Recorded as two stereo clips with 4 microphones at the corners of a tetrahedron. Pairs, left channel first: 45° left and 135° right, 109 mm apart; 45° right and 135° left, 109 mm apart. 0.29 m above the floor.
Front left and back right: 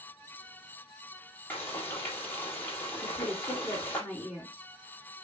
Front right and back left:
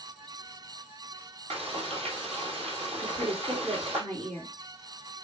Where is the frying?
115° left, 3 m.